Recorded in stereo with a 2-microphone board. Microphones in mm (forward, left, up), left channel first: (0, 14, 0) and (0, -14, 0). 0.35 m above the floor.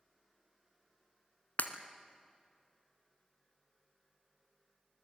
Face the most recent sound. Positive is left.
turn(degrees=75)  # may be behind; listen again after turning